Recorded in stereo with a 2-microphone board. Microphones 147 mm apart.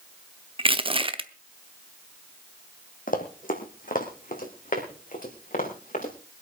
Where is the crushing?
40° right (ahead or behind), 0.8 m.